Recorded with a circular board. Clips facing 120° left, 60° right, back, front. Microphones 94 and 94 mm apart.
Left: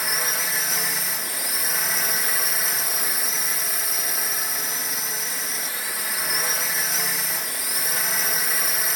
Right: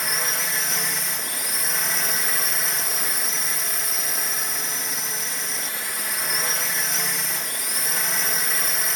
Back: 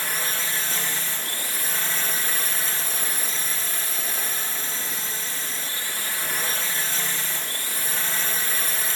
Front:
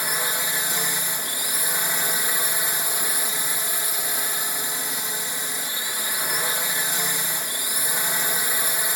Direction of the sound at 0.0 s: 35° left.